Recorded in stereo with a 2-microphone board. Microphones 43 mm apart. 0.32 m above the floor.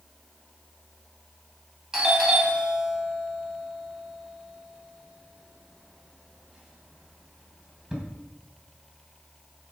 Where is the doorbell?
15° right (ahead or behind), 3 m.